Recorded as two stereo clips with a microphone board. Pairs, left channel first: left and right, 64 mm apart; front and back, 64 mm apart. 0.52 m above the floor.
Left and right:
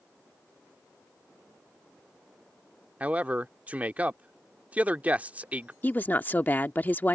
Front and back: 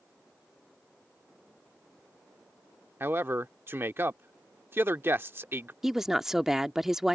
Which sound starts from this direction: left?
A woman speaking, at 5.8 s.